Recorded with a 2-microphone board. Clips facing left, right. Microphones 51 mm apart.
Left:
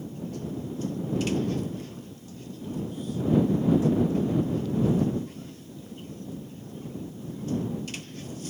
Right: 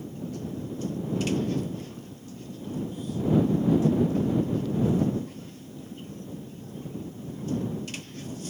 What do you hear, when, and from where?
Only background noise.